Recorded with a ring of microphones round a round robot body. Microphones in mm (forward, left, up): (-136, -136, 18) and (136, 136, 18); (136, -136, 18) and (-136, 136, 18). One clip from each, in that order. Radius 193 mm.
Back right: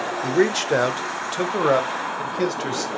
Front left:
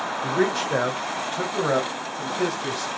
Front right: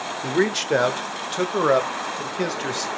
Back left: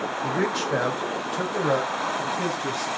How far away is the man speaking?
About 1.0 m.